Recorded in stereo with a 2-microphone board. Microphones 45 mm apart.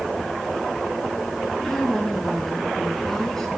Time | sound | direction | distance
1.6 | a woman speaking | 10° left (ahead or behind) | 4 m